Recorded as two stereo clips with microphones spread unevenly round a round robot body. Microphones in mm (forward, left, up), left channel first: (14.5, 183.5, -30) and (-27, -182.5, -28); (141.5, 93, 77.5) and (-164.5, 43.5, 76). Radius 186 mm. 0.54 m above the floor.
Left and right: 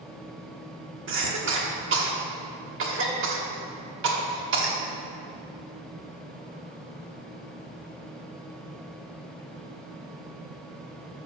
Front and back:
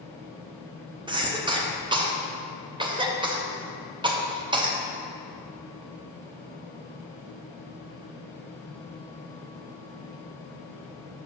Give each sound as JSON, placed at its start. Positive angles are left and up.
{"t": 1.1, "sound": "a cough", "azimuth_deg": -110, "distance_m": 1.1}